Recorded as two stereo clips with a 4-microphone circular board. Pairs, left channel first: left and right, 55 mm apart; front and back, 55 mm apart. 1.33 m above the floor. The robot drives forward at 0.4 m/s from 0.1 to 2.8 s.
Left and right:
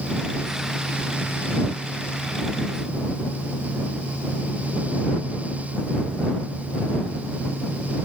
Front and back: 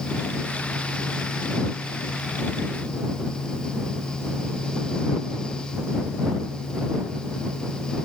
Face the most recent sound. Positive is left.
No sound to turn to.